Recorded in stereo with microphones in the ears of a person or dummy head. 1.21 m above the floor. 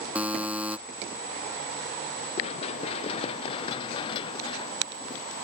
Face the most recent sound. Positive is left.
turn(degrees=30)  # may be behind; listen again after turning